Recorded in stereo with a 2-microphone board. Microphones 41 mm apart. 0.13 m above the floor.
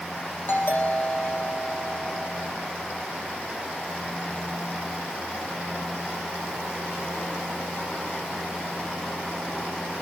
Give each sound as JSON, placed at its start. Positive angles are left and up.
{"t": 0.5, "sound": "a doorbell", "side_deg": 50, "distance_m": 8.5}